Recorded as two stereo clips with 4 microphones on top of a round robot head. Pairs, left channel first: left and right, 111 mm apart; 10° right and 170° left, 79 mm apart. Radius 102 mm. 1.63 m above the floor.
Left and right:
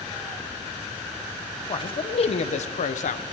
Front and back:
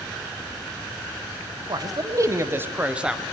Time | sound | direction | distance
1.7 | a man speaking | 135° left | 1.8 m